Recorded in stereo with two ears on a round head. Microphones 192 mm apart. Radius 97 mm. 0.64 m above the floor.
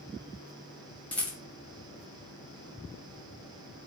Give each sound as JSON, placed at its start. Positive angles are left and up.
{"t": 1.1, "sound": "a rattle", "side_deg": 5, "distance_m": 0.6}